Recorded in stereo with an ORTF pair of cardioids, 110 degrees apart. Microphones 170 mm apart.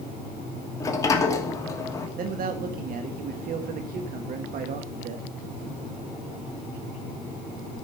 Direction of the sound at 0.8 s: 20° left.